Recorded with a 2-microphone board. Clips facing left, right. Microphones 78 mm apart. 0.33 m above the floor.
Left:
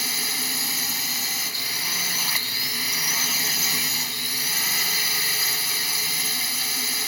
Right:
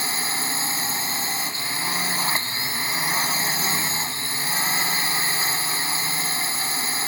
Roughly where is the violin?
No violin in this recording.